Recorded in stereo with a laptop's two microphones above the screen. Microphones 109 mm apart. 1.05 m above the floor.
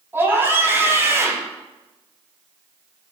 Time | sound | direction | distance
0.1 | a scream | 20° right (ahead or behind) | 8 m